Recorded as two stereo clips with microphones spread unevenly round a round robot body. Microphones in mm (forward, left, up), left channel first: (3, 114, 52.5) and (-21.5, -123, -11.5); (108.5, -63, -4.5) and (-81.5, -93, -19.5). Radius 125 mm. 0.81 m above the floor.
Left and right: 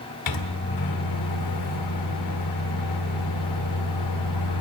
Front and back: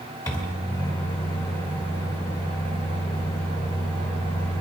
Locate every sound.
0.3 s a microwave: 85° left, 1.8 m